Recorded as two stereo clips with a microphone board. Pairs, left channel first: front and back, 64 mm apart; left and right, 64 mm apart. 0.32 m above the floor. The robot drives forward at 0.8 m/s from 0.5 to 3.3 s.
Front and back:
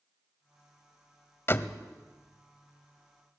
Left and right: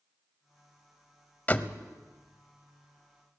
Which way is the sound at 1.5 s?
35° left.